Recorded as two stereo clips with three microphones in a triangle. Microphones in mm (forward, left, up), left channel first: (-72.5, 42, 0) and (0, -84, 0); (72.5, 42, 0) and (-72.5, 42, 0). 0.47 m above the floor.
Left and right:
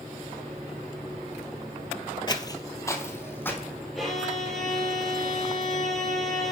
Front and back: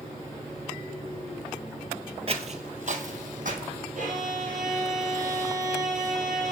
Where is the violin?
150° right, 3 m.